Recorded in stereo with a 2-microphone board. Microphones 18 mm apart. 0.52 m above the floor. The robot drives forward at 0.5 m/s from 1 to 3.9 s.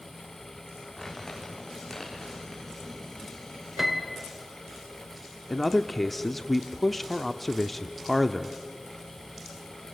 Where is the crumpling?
15° left (ahead or behind), 6 m.